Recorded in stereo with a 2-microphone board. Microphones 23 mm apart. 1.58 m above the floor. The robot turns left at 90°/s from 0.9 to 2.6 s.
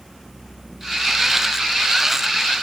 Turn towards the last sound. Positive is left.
No sound to turn to.